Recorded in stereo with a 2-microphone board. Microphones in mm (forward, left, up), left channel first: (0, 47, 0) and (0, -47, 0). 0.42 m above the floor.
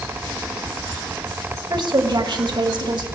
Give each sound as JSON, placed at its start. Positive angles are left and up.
{"t": 1.7, "sound": "a woman speaking", "side_deg": -55, "distance_m": 1.9}